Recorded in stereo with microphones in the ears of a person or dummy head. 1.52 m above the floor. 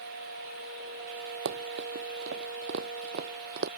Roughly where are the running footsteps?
Right.